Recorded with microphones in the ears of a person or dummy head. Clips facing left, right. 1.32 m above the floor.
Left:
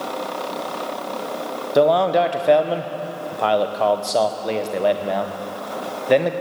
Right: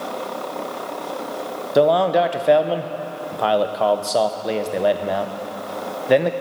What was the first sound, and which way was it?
A man speaking, centre (ahead or behind).